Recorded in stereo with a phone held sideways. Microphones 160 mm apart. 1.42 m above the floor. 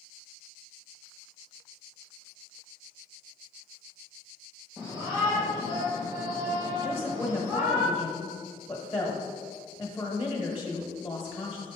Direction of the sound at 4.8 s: 20° right (ahead or behind).